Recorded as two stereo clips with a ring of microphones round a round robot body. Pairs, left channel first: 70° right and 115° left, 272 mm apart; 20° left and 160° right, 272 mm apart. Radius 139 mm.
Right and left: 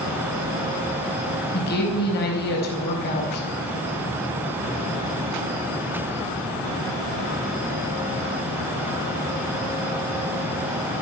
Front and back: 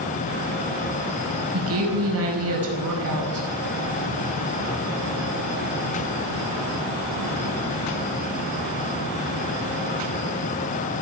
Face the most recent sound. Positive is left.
turn(degrees=-120)